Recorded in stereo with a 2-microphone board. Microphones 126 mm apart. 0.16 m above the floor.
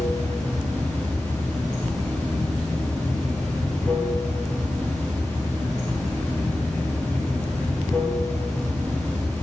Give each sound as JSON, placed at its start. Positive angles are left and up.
{"t": 0.0, "sound": "running water", "side_deg": 10, "distance_m": 2.5}